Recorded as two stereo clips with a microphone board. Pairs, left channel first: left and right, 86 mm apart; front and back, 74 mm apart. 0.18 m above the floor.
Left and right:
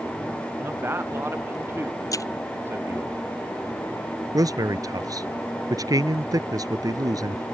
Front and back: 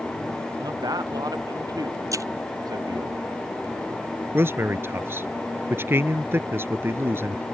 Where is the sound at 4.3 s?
125° right.